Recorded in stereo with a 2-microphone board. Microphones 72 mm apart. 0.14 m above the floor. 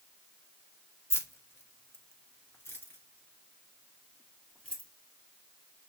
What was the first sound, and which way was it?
Keys jangling, 35° left (ahead or behind).